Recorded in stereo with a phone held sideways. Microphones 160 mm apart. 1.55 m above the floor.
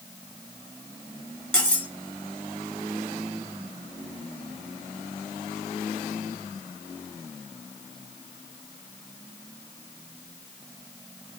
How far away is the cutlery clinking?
About 0.8 m.